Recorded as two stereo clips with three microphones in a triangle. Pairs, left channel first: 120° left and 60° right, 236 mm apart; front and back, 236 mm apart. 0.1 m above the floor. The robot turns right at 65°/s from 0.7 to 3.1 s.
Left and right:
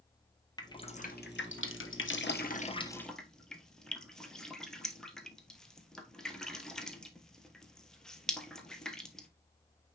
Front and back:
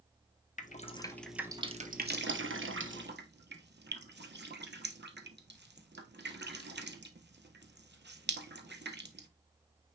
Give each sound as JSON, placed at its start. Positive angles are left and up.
{"t": 0.6, "sound": "dripping", "azimuth_deg": 50, "distance_m": 1.0}